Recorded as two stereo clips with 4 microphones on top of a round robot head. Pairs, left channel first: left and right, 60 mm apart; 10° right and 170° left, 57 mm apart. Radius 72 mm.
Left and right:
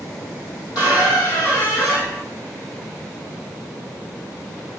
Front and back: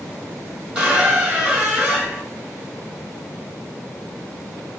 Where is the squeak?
100° left, 1.6 m.